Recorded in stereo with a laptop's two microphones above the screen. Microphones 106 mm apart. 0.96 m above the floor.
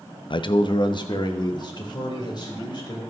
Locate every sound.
0.3 s a man speaking: 50° left (ahead or behind), 0.6 m; by 3.0 s 45° left (ahead or behind), 4 m